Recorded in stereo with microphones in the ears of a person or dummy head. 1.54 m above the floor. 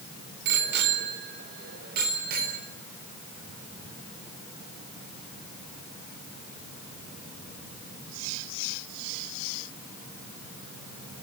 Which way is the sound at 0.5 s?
65° right (ahead or behind).